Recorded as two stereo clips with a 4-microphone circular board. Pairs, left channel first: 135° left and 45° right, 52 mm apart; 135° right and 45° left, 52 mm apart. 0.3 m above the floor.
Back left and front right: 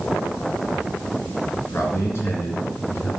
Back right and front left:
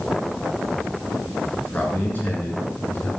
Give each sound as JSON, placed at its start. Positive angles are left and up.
{"t": 1.6, "sound": "a man speaking", "azimuth_deg": 160, "distance_m": 3.5}